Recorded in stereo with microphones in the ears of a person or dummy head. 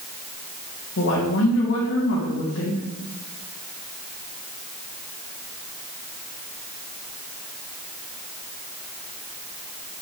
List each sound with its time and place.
1.0 s a woman speaking: 65° left (ahead or behind), 2.5 m